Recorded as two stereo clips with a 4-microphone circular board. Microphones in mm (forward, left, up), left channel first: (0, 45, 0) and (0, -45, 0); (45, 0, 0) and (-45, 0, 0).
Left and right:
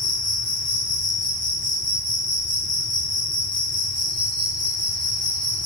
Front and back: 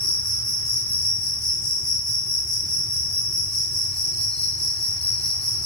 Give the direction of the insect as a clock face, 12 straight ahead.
3 o'clock.